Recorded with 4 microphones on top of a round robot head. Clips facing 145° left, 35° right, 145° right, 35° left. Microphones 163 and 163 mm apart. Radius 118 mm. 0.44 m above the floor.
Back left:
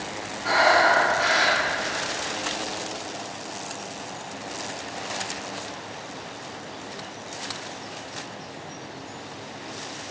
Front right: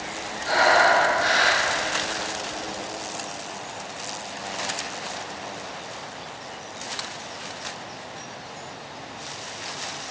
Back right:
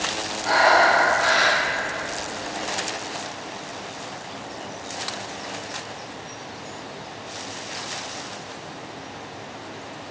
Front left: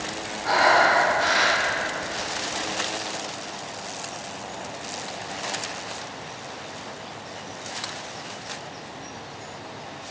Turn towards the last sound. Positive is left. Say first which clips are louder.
# front right 1 dB, back right 2 dB
turn(degrees=130)